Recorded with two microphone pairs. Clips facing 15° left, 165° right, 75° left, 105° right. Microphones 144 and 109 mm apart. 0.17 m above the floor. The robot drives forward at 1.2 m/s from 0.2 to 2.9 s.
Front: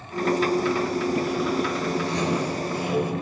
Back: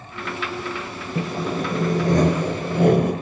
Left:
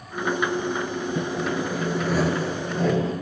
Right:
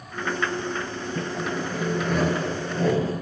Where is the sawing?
150° left, 2.5 m; by 3.1 s 165° left, 4.5 m.